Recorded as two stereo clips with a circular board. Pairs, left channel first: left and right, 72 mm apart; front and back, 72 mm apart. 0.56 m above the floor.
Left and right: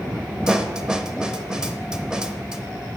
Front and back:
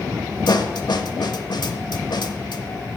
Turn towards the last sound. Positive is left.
turn(degrees=-10)